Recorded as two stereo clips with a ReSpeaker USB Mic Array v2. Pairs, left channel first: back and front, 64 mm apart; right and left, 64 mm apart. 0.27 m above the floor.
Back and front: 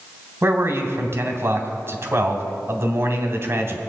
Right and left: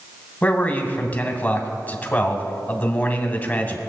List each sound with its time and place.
0.4 s a man speaking: 30° right, 1.5 m